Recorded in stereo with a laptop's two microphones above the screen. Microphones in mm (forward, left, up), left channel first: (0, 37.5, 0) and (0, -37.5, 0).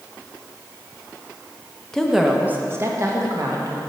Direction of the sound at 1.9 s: 10° left (ahead or behind).